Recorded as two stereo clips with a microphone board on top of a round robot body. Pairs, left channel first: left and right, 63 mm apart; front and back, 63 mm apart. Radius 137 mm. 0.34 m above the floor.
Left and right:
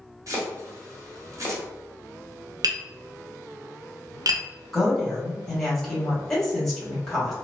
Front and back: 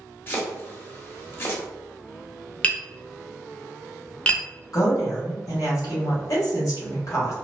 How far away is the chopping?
About 1.1 m.